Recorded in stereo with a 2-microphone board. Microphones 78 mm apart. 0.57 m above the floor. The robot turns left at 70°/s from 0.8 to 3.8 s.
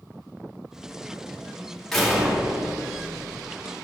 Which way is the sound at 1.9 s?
5° left.